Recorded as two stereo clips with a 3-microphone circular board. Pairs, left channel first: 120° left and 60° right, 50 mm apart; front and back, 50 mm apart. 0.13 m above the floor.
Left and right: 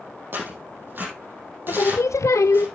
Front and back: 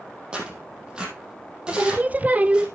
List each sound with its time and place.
0.3 s tearing paper: 110° right, 5 m
1.7 s singing: 125° left, 0.6 m